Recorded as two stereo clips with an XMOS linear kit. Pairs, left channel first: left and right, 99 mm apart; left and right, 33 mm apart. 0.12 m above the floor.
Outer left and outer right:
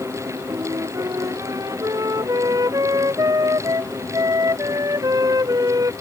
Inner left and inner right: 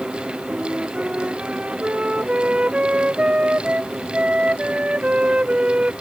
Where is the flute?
40° right (ahead or behind).